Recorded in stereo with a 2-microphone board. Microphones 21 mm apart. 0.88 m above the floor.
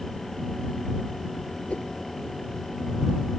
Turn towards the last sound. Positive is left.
turn(degrees=70)  # may be behind; listen again after turning